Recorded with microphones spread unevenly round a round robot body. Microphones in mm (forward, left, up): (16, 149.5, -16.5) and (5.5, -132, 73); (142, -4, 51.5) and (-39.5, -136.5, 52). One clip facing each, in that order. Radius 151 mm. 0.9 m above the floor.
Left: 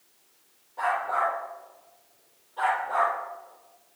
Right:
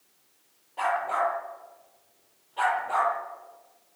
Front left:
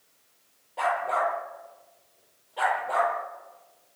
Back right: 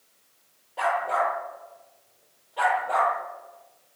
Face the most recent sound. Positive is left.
turn(degrees=-50)